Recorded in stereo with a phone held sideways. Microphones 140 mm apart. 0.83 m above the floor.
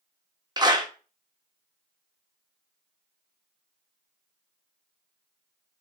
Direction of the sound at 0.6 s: 30° right (ahead or behind).